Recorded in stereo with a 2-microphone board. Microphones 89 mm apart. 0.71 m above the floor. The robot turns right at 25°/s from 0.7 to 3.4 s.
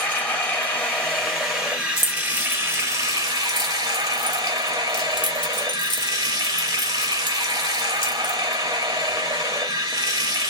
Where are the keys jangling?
30° left (ahead or behind), 1.4 m; by 8.4 s 60° left (ahead or behind), 1.4 m.